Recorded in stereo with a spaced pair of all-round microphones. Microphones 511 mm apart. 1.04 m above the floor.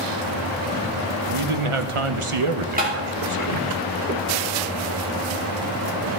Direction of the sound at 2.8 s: 15° right (ahead or behind).